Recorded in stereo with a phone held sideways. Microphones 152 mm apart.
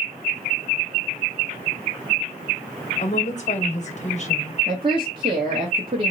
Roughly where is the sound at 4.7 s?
Right.